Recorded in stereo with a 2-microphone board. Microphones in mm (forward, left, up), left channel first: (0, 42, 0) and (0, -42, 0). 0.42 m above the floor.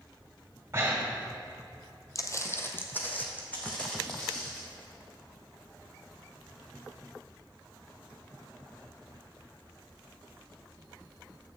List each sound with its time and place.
0.7 s breathing: 30° right (ahead or behind), 1.5 m
2.1 s footsteps: 45° left (ahead or behind), 0.6 m; by 4.6 s 15° left (ahead or behind), 2.5 m